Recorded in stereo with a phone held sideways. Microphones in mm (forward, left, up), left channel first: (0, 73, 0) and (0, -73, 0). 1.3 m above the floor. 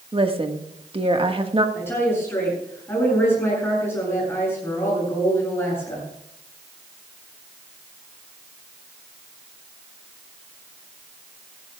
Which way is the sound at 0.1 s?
40° right (ahead or behind).